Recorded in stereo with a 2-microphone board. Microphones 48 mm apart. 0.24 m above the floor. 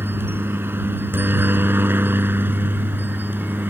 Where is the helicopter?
50° right (ahead or behind); by 3.7 s 45° right (ahead or behind).